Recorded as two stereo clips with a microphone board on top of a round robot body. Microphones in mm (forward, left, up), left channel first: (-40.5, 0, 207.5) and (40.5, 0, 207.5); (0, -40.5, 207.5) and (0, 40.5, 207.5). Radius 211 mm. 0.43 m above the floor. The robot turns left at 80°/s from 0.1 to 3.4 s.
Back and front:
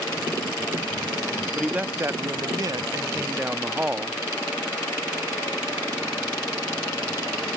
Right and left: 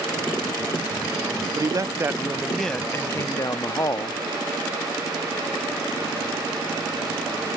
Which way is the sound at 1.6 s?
80° left.